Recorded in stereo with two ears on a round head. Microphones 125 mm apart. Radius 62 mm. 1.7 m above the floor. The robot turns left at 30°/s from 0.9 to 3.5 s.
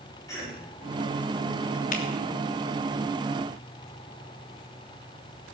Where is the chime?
I don't hear a chime.